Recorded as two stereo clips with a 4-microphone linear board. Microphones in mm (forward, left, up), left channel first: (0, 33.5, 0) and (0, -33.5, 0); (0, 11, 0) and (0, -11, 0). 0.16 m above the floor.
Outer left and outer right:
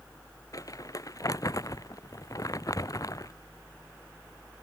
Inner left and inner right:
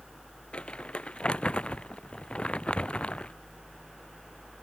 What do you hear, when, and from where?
0.5 s crumpling: 55° left (ahead or behind)